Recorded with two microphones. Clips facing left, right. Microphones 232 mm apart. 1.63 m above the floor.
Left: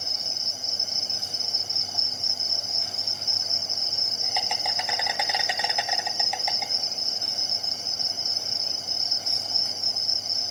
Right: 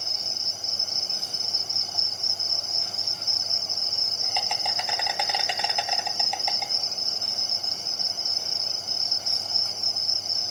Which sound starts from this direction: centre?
An insect, at 0.0 s.